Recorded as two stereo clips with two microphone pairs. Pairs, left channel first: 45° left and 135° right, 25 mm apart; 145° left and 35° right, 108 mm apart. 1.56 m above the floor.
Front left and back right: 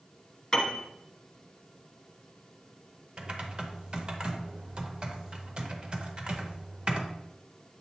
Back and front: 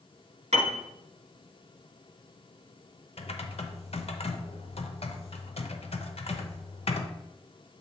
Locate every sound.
0.5 s a piano: 25° right, 1.1 m
3.2 s typing on a keyboard: straight behind, 0.7 m